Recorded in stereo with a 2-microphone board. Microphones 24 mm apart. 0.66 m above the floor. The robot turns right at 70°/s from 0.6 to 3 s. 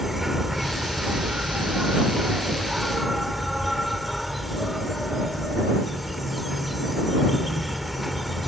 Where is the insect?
170° right; by 8.5 s straight ahead.